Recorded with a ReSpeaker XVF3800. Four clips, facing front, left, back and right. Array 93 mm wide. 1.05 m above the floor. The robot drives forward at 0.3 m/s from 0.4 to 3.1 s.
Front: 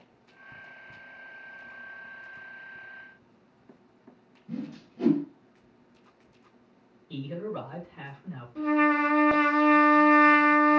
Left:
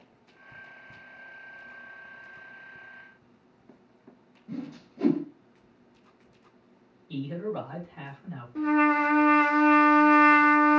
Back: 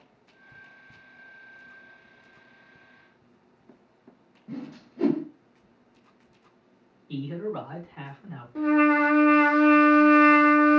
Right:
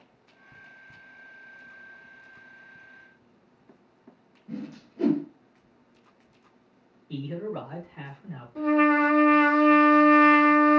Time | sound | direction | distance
4.5 | a whoosh | 155° right | 1.4 m
7.1 | a man speaking | 160° right | 2 m
8.6 | a trumpet | 170° left | 1.2 m